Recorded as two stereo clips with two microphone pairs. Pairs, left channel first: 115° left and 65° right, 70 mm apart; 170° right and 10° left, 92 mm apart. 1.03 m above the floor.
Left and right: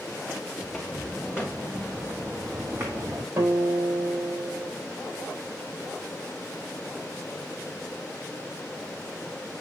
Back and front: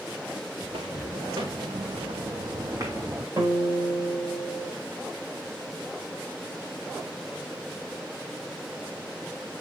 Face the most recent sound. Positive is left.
turn(degrees=-35)